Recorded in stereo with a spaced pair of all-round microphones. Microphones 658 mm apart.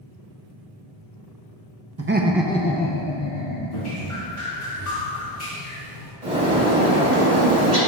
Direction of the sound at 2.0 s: 25° right (ahead or behind).